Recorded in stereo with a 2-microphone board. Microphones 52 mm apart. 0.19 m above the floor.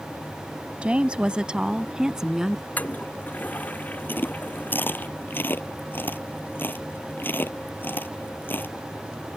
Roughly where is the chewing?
Left.